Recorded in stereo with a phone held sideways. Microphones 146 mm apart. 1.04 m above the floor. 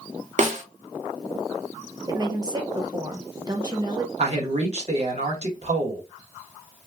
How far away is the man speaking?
About 1.0 m.